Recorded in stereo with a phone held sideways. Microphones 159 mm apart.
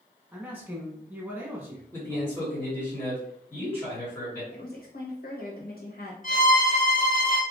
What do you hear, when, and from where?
0.3 s a man speaking: 10° right (ahead or behind), 0.9 m
1.9 s a man speaking: 15° left (ahead or behind), 1.7 m
4.5 s a woman speaking: 65° left (ahead or behind), 1.1 m
6.2 s a violin: 50° left (ahead or behind), 1.5 m